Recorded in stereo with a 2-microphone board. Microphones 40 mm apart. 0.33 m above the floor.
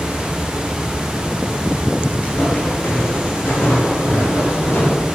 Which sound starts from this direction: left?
Footsteps, at 2.2 s.